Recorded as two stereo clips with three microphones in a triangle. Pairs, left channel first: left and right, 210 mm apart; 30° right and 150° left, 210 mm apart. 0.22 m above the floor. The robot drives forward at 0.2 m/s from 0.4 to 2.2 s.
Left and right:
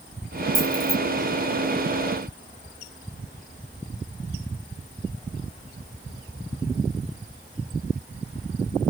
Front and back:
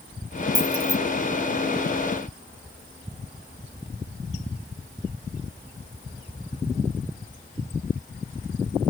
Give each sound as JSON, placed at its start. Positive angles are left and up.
{"t": 0.6, "sound": "keys jangling", "azimuth_deg": 75, "distance_m": 1.0}